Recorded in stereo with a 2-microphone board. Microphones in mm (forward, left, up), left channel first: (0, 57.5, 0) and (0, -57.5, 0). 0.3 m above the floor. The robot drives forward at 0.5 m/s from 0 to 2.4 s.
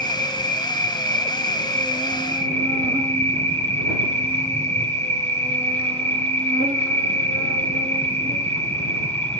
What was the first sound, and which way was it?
An insect, 70° right (ahead or behind).